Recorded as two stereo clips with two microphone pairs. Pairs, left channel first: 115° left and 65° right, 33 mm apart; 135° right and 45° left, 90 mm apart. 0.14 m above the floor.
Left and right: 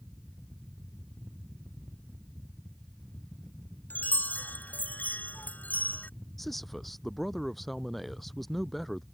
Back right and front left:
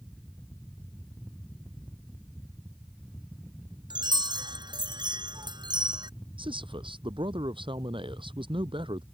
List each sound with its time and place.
3.9 s a chime: 85° left
6.4 s a man speaking: 30° left